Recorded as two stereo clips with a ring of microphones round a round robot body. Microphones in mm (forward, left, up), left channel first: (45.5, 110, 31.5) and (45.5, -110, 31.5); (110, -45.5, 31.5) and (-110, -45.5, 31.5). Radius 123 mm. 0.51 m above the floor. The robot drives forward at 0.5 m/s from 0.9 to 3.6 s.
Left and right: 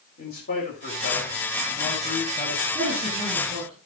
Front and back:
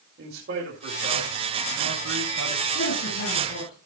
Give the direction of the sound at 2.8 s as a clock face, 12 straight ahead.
1 o'clock.